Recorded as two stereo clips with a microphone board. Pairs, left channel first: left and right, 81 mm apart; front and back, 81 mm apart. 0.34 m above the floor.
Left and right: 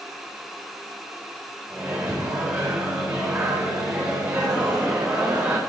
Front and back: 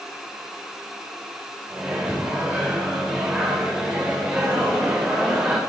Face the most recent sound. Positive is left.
turn(degrees=-110)